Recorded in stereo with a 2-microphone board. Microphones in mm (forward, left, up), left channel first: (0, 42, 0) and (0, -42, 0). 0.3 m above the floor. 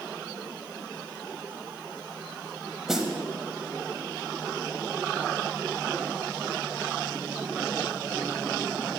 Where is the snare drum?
5° right (ahead or behind), 0.6 m.